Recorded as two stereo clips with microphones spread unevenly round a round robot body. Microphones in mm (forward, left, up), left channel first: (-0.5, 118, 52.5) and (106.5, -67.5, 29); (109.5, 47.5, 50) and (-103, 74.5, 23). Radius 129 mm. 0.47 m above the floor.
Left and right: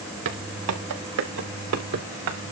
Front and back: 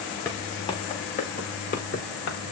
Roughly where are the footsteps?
Right.